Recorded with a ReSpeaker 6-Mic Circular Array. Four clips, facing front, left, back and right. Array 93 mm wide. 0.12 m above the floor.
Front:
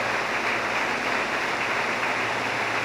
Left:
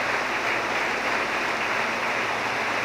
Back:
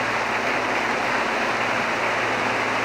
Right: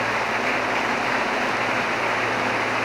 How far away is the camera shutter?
No camera shutter in this recording.